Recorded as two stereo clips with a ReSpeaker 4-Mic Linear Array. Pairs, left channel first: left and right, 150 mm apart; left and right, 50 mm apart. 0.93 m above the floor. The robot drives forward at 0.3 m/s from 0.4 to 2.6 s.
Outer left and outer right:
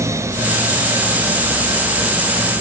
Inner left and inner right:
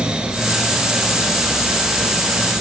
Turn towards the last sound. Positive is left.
No sound to turn to.